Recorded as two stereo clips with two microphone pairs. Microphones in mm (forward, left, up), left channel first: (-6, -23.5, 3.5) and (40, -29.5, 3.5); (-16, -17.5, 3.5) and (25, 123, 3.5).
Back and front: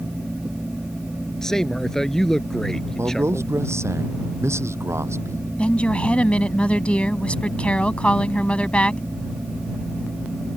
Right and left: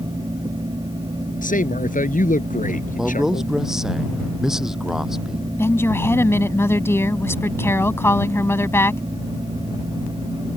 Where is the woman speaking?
165° right.